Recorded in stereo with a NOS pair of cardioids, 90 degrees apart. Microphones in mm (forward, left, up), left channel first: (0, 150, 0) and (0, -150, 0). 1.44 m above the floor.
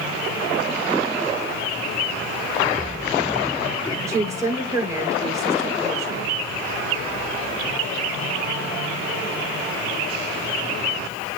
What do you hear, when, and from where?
4.1 s a woman speaking: 10° right, 5 m